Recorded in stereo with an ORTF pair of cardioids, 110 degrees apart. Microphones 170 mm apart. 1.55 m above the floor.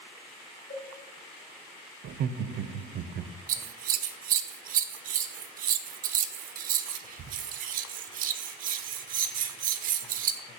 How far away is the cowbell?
About 3 m.